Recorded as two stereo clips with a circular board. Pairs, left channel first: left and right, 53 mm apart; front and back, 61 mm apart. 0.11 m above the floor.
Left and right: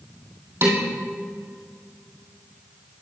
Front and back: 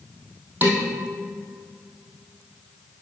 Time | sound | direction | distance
0.6 | dishes clattering | 130° right | 2.5 m